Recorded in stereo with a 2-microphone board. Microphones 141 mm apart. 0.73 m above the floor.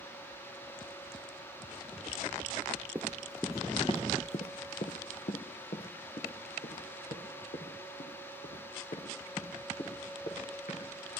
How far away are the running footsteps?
About 0.8 m.